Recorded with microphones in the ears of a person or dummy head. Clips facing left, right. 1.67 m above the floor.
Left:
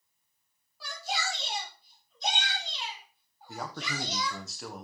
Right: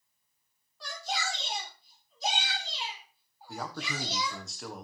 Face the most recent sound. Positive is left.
turn(degrees=0)  # may be behind; listen again after turning